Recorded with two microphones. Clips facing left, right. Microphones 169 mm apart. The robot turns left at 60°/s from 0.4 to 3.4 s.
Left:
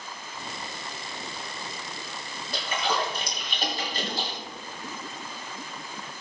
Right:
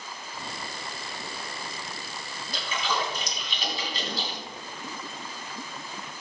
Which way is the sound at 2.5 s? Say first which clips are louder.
Left 2 dB; 55° left (ahead or behind).